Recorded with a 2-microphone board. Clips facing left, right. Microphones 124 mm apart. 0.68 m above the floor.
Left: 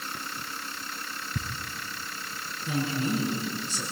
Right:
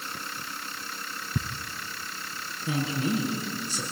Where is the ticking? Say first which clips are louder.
Right 5 dB; 40° right (ahead or behind), 1.6 m.